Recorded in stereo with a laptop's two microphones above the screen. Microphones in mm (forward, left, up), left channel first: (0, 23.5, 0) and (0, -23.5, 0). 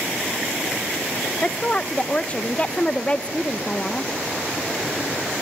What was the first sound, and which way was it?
A woman speaking, 25° left (ahead or behind).